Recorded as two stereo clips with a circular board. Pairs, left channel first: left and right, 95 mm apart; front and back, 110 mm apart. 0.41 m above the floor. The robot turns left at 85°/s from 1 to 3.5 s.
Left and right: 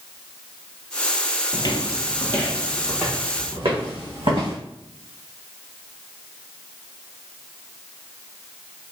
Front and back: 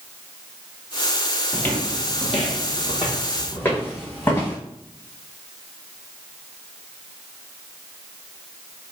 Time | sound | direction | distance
1.5 | footsteps | 75° left | 0.6 m